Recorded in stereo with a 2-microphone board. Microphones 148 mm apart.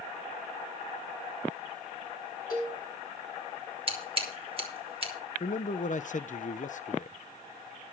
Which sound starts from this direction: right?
Scissors, at 3.9 s.